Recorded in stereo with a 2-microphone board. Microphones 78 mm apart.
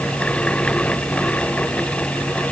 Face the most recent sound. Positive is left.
No sound to turn to.